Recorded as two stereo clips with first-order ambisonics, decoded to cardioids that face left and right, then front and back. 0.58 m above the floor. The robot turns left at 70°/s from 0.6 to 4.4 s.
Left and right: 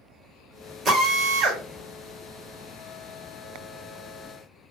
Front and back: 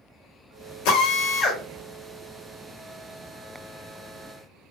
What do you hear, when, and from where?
0.8 s a drill: 20° right, 1.1 m; by 1.6 s 75° right, 1.1 m